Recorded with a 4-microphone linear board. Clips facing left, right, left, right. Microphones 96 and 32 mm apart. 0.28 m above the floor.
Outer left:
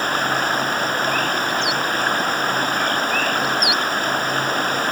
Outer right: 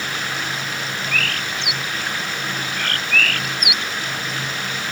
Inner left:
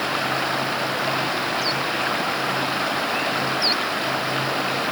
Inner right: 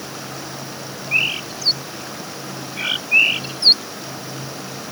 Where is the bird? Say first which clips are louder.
Outer left 5 dB, inner right 2 dB; 70° right (ahead or behind).